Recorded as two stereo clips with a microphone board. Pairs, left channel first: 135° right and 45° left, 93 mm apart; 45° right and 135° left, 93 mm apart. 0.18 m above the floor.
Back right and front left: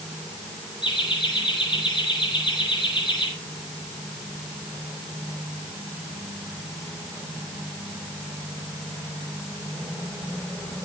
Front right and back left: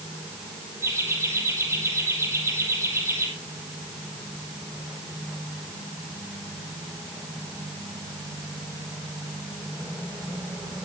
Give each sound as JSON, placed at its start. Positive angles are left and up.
{"t": 0.8, "sound": "laughter", "azimuth_deg": -165, "distance_m": 6.0}